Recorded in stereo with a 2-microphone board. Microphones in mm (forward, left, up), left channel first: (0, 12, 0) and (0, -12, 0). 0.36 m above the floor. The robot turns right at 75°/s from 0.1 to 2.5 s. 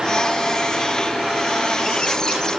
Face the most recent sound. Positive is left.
No sound to turn to.